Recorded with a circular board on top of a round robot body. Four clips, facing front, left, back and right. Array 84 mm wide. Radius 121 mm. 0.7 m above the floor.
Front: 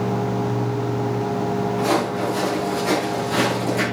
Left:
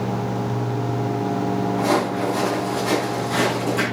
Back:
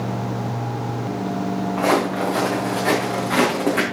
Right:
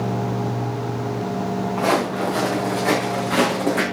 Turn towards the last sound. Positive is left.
turn(degrees=-155)